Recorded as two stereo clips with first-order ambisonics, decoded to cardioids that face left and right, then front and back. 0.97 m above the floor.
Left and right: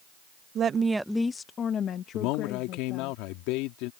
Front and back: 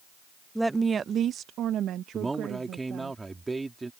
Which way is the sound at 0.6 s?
90° right.